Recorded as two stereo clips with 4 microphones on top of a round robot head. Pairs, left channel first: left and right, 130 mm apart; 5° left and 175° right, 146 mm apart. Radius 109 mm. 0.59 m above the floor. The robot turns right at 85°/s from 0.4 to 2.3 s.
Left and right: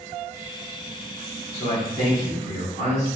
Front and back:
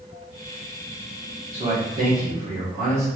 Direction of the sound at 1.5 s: 140° left.